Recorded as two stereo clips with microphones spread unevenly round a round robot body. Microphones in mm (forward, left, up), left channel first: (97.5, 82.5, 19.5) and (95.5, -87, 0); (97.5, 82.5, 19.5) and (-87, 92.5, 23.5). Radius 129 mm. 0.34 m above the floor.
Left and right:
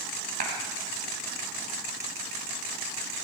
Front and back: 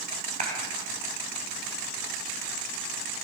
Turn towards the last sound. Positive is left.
turn(degrees=-125)